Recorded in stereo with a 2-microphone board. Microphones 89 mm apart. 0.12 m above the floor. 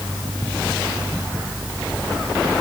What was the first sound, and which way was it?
Only background noise.